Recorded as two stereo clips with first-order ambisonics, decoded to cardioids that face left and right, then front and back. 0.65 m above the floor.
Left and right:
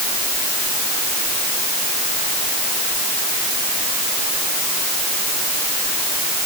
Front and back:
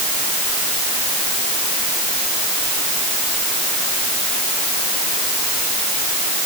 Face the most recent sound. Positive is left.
No sound to turn to.